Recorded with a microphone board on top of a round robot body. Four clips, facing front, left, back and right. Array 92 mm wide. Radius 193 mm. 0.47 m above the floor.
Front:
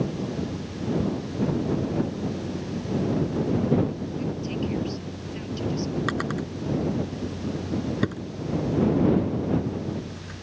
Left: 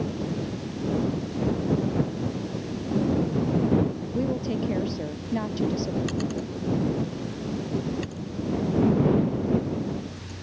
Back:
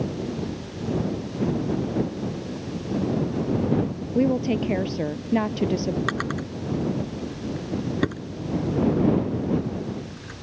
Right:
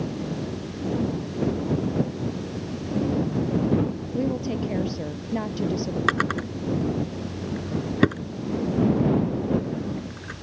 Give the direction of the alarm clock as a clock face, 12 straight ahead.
I don't hear an alarm clock.